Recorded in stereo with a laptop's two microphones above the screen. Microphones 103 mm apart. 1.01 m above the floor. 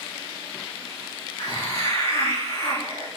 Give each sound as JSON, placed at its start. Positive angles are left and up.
{"t": 1.4, "sound": "a hiss", "side_deg": 75, "distance_m": 2.0}